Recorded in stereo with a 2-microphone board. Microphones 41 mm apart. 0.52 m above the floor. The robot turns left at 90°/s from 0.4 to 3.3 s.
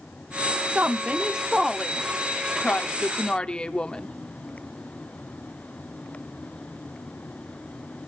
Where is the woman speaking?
85° right, 1.0 m; by 4.2 s 45° left, 1.0 m.